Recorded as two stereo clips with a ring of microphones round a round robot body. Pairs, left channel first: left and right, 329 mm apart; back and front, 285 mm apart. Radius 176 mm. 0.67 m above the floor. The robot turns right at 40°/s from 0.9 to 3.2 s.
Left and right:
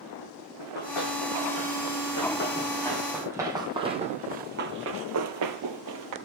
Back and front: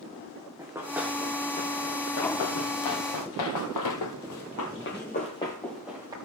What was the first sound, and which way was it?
Running footsteps, 80° left.